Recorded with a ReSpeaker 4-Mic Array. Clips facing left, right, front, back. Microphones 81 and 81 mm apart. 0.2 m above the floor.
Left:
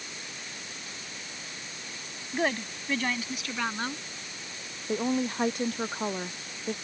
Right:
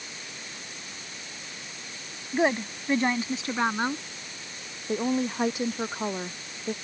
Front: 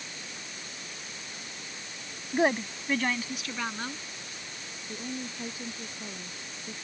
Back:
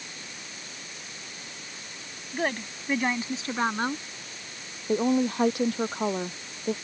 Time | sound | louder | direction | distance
2.3 | a woman speaking | right 4 dB, front 4 dB | 35° right | ?
4.9 | a woman speaking | right 1 dB, back 15 dB | 175° right | ?